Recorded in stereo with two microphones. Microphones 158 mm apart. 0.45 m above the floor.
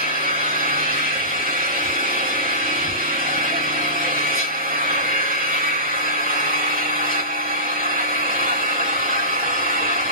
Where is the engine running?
65° right (ahead or behind), 2.5 m.